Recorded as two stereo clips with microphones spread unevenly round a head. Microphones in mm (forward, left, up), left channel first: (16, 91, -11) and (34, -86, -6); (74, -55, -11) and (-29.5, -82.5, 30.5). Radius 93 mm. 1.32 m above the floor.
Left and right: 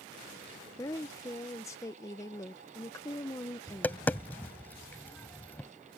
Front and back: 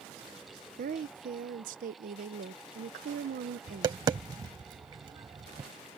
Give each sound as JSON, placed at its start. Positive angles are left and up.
{"t": 0.8, "sound": "a woman speaking", "azimuth_deg": 170}
{"t": 3.7, "sound": "tapping", "azimuth_deg": 175}